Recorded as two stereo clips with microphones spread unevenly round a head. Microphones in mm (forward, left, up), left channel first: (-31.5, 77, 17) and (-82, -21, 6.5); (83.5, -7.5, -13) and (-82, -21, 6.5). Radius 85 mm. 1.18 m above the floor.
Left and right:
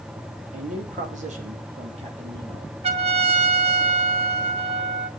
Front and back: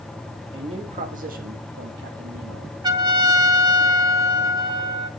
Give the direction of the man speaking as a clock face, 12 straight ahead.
4 o'clock.